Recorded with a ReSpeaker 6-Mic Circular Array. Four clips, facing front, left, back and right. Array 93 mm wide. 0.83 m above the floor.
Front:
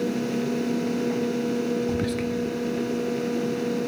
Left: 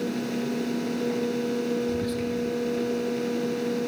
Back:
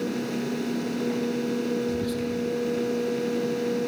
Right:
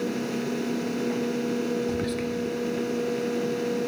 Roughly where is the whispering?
Ahead right.